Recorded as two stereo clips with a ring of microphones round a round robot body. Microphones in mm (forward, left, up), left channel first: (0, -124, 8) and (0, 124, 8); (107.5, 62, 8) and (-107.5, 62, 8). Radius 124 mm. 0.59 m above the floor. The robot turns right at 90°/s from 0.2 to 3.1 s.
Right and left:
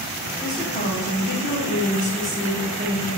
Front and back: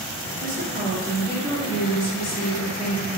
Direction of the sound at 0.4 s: 165° right.